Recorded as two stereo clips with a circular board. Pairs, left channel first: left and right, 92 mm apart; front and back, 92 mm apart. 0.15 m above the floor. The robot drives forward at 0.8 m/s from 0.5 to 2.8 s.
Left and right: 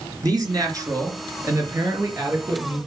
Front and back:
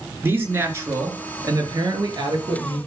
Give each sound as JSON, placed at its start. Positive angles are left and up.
{"t": 0.2, "sound": "a man speaking", "azimuth_deg": -120, "distance_m": 2.5}